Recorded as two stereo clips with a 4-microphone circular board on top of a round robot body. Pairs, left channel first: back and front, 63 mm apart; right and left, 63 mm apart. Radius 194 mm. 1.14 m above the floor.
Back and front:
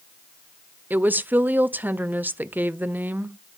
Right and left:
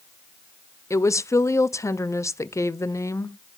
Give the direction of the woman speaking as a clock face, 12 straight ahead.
2 o'clock.